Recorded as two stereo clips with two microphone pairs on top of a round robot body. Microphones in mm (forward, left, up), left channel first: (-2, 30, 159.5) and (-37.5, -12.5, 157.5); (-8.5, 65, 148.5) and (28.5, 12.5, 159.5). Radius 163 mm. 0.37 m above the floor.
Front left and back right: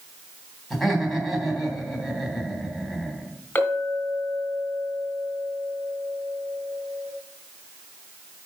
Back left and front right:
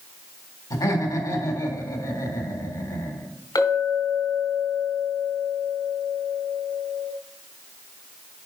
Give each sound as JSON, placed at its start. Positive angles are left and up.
{"t": 0.7, "sound": "laughter", "azimuth_deg": 140, "distance_m": 3.5}
{"t": 3.5, "sound": "a clink", "azimuth_deg": 110, "distance_m": 2.5}